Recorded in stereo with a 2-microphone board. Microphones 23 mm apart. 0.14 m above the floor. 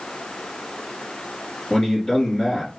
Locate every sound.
1.7 s a man speaking: 30° left (ahead or behind), 2.5 m